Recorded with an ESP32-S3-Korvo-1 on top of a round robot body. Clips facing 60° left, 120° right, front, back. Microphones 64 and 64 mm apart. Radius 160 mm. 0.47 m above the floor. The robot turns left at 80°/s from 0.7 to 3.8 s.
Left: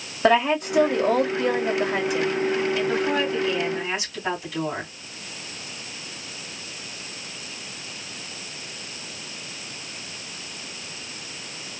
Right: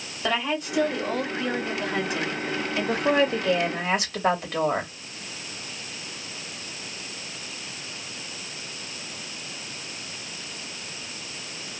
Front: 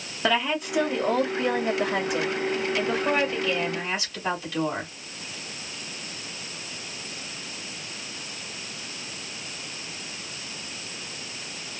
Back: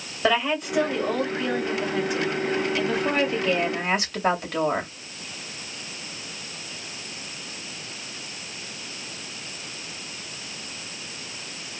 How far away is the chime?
No chime in this recording.